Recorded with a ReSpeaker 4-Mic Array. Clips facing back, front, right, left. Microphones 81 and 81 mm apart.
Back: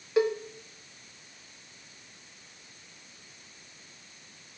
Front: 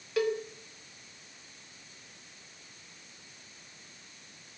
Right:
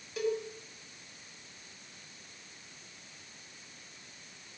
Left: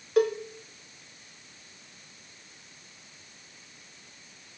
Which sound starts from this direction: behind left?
A cowbell, at 0.2 s.